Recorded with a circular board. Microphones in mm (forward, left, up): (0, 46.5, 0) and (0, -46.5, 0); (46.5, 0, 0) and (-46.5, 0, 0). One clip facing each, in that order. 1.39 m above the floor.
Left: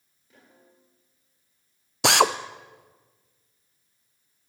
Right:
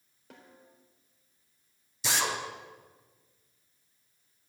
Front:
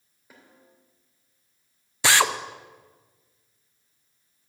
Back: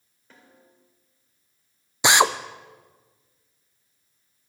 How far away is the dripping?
I don't hear dripping.